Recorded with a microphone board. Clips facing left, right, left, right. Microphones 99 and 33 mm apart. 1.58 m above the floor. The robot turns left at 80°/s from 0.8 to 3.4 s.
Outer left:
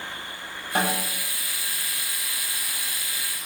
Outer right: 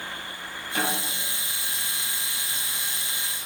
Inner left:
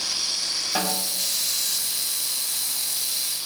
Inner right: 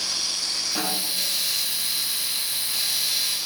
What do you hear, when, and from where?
0.8 s a snare drum: 50° left (ahead or behind), 4.5 m; by 1.1 s 70° left (ahead or behind), 4.5 m